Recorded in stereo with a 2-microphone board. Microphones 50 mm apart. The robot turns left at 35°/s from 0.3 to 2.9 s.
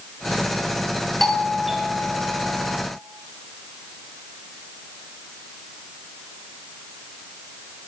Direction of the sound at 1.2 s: 5° left.